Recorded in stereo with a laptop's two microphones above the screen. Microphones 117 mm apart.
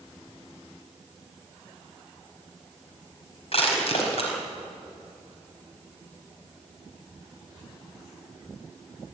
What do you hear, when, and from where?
3.5 s crushing: 60° left (ahead or behind), 4.5 m